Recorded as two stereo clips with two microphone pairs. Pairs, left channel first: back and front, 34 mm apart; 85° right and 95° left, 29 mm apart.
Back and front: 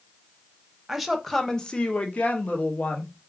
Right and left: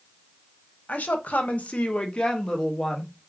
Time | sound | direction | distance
0.9 | a woman speaking | 85° right | 0.7 m